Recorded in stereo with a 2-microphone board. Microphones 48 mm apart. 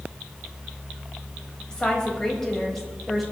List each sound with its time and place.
1.7 s a woman speaking: 20° left (ahead or behind), 3.5 m; by 3.2 s 5° left (ahead or behind), 3.5 m